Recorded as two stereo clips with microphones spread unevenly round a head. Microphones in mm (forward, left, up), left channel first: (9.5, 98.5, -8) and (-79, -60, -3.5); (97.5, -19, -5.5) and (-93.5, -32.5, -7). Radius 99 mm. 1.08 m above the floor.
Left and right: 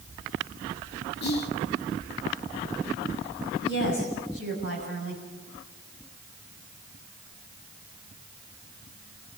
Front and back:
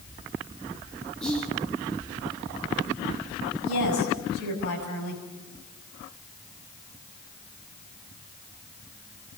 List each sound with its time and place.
1.2 s whispering: 90° left, 2.5 m
3.6 s a woman speaking: 20° left, 7 m